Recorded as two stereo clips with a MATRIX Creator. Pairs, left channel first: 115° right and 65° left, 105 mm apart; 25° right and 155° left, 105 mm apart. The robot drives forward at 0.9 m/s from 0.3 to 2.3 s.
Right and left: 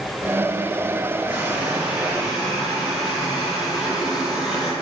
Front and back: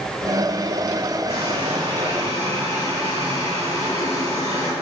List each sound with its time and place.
1.3 s a running tap: 150° left, 3.5 m; by 4.7 s 155° left, 4 m